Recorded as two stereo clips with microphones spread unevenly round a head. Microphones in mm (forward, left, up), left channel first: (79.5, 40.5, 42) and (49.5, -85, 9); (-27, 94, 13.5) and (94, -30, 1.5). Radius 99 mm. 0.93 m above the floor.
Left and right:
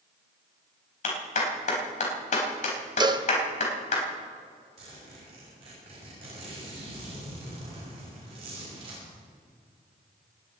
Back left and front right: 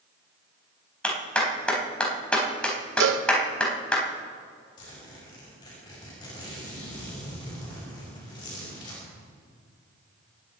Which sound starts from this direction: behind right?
A zipper, at 4.8 s.